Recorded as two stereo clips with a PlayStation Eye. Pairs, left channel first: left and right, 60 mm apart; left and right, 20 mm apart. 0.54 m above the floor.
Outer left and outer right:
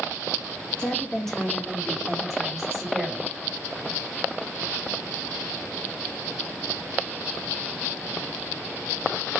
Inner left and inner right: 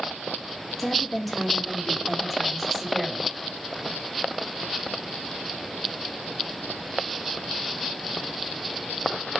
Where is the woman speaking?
15° left (ahead or behind), 1.0 m; by 3.3 s 15° right (ahead or behind), 1.6 m.